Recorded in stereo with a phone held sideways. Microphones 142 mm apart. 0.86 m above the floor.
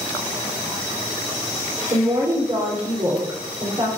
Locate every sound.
1.9 s a woman speaking: 35° right (ahead or behind), 3 m